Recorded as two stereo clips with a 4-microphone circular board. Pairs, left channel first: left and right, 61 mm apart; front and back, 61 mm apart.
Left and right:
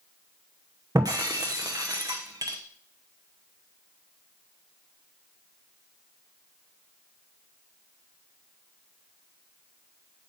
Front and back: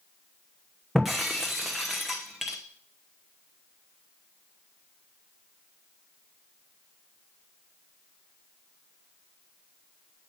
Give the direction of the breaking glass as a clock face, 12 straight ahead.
3 o'clock.